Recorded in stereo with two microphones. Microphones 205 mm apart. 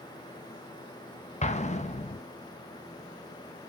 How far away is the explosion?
About 0.8 m.